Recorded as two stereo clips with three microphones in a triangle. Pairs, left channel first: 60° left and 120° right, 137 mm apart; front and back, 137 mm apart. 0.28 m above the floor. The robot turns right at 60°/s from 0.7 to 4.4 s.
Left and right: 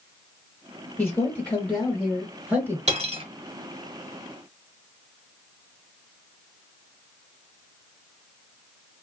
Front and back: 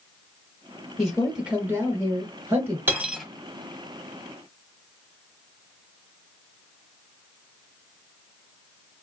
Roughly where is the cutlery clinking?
Right.